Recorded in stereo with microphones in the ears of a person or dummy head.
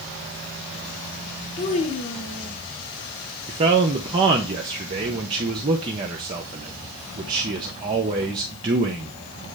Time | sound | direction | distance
1.6 | a child speaking | 35° left (ahead or behind) | 1.4 m
3.5 | a man speaking | 25° right (ahead or behind) | 0.6 m